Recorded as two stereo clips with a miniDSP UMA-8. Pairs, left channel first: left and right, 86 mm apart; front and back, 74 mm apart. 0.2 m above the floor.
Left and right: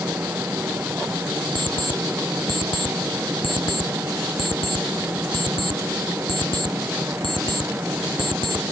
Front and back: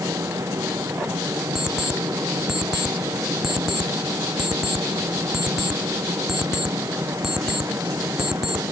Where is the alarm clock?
95° left.